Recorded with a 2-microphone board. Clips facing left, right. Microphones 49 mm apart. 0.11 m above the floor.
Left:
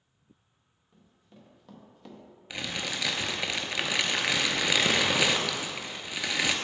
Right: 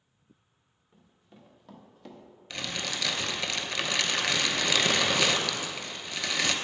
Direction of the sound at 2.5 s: 10° left (ahead or behind).